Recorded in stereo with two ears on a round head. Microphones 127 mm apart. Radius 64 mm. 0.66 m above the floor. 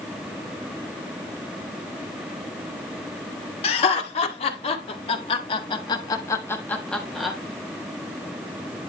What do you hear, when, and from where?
3.6 s laughter: 45° left (ahead or behind), 2.5 m; by 7.4 s 5° right (ahead or behind), 1.2 m